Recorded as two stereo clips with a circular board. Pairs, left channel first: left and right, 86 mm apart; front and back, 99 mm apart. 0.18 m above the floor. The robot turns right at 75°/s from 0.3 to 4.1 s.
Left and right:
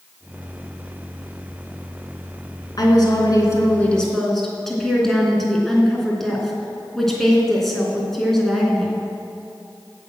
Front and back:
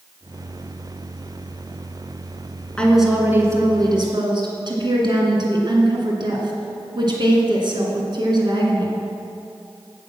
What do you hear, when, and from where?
2.8 s a woman speaking: 75° left, 2.5 m; by 9.0 s 175° left, 2.5 m